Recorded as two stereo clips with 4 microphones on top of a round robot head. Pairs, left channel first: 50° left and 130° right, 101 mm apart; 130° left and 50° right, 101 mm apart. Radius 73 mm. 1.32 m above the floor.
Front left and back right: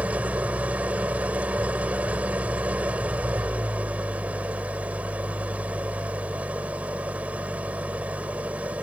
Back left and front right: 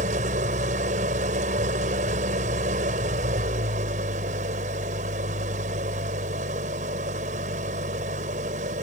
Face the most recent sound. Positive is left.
turn(degrees=-50)